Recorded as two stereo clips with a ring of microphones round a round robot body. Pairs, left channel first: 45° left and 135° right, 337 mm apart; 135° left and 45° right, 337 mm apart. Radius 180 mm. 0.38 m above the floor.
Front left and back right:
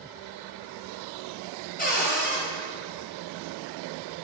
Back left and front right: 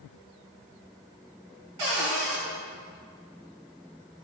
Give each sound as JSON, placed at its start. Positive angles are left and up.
{"t": 1.8, "sound": "a cupboard door", "azimuth_deg": -20, "distance_m": 3.5}